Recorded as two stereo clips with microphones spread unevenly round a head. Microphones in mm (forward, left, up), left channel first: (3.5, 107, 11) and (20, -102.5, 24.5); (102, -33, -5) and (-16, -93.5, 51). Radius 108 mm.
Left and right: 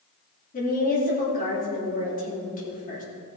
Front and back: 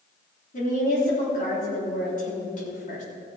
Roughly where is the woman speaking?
Ahead left.